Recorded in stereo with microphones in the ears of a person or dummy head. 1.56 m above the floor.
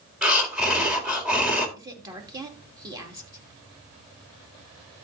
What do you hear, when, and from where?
0.2 s breathing: 10° right (ahead or behind), 2 m
1.8 s a woman speaking: 20° right (ahead or behind), 2.5 m